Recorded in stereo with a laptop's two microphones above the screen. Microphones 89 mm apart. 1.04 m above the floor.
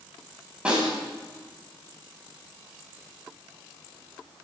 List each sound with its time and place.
0.7 s a snare drum: 15° right (ahead or behind), 9 m